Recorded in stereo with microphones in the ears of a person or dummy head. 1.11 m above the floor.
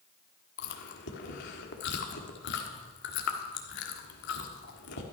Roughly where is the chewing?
Left.